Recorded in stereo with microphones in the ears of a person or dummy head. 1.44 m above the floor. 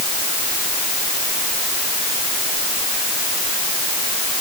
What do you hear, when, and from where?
Only background noise.